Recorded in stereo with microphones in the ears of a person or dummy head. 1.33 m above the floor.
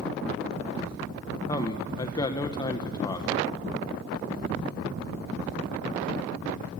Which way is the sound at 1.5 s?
25° left (ahead or behind).